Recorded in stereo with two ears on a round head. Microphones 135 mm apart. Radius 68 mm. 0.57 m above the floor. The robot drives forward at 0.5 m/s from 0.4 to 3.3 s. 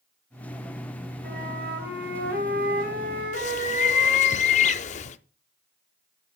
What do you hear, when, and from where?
1.2 s a flute: 70° right (ahead or behind), 3 m; by 4.3 s 65° right (ahead or behind), 3 m
3.3 s a bird: 50° left (ahead or behind), 0.6 m